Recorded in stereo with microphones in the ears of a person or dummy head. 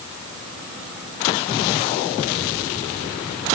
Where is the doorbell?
I don't hear a doorbell.